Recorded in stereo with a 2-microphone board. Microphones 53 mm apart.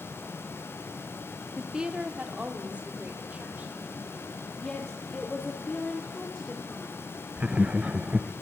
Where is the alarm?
I don't hear an alarm.